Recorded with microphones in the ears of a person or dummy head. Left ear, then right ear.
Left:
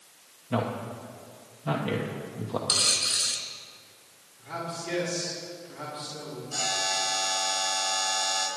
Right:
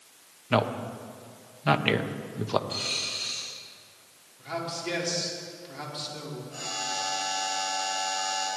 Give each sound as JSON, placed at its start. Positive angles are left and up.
{"t": 0.5, "sound": "a man speaking", "side_deg": -65, "distance_m": 1.1}
{"t": 2.7, "sound": "a dropped coin", "side_deg": 70, "distance_m": 3.5}
{"t": 4.4, "sound": "a man speaking", "side_deg": -35, "distance_m": 4.5}
{"t": 6.5, "sound": "a buzzer", "side_deg": 50, "distance_m": 6.0}